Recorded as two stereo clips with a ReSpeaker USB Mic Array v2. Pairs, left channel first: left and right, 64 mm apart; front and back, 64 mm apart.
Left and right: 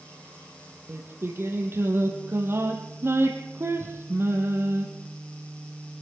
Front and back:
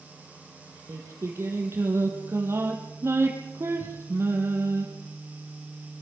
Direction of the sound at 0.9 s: 140° right.